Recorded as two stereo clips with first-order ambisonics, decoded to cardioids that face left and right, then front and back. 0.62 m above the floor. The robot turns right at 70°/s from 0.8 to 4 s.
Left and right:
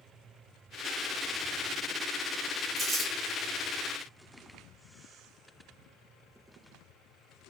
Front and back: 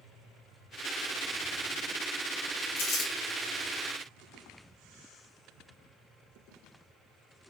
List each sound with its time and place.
2.8 s crumpling: 25° right, 0.9 m; by 3.1 s straight ahead, 0.9 m